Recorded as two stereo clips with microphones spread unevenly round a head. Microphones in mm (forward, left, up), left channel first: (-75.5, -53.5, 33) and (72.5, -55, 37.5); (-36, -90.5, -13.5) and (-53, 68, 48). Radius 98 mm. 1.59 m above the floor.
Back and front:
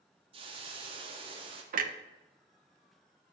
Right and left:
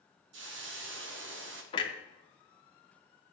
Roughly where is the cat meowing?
I don't hear a cat meowing.